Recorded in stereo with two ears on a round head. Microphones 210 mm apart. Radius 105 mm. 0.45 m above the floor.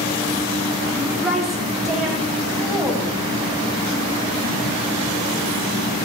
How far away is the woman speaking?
About 0.9 m.